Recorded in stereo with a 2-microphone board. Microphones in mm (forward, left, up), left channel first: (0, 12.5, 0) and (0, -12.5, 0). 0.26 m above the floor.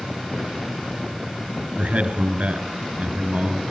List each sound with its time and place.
1.8 s a man speaking: 70° right (ahead or behind), 4 m